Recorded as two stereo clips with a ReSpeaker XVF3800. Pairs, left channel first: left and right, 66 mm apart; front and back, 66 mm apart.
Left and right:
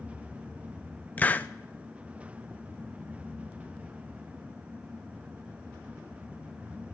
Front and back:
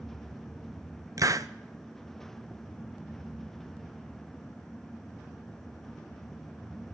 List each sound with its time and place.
1.2 s a hiss: 155° left, 0.5 m